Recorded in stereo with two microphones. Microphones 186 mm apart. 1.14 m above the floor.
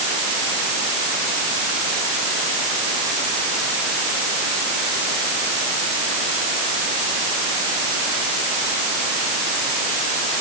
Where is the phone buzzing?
I don't hear a phone buzzing.